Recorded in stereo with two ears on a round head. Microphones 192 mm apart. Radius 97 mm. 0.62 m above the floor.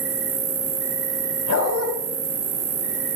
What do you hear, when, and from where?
0.0 s an insect: 60° right (ahead or behind), 1.0 m
1.5 s a dog barking: 85° left, 1.3 m